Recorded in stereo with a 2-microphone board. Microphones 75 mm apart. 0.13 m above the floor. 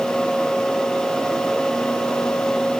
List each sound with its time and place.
Only background noise.